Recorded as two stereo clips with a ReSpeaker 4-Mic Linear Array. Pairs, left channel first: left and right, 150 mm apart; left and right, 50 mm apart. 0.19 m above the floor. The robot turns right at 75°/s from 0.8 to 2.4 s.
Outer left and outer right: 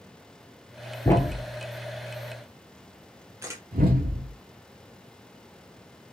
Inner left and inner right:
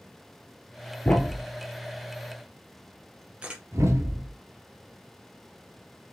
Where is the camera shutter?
20° right (ahead or behind), 1.6 m.